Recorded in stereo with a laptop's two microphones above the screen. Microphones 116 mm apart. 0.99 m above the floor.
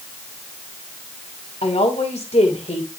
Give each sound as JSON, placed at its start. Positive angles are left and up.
{"t": 1.6, "sound": "a woman speaking", "side_deg": 65, "distance_m": 3.0}